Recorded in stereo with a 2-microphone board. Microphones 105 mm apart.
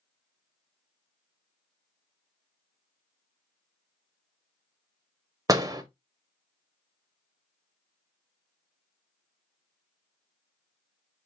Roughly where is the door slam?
Right.